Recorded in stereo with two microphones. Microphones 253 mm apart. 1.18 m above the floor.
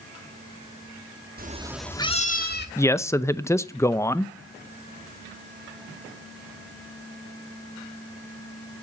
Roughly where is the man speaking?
Centre.